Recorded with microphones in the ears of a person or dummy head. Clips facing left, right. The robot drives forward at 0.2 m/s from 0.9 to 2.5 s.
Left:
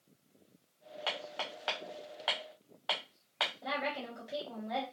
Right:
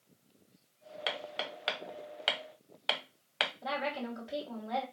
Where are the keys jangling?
No keys jangling in this recording.